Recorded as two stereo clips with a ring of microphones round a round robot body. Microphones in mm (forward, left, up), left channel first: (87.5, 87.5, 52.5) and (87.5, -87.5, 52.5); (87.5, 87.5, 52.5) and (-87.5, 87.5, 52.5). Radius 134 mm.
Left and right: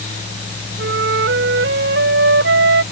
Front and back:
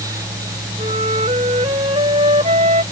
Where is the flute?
115° right.